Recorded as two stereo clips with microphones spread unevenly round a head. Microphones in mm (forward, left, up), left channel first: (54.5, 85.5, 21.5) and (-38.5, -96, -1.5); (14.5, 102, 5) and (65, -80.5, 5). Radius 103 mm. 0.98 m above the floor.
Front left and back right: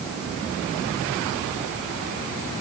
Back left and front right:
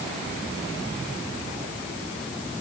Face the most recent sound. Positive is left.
No sound to turn to.